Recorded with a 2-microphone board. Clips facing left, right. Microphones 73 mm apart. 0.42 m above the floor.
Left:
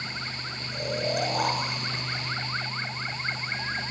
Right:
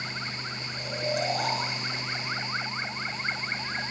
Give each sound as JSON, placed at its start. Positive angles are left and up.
{"t": 0.7, "sound": "snoring", "side_deg": 60, "distance_m": 5.5}